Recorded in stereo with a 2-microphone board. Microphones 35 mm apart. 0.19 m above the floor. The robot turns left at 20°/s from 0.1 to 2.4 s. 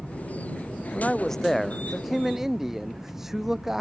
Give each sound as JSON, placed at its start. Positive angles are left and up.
{"t": 0.9, "sound": "a man speaking", "side_deg": 25}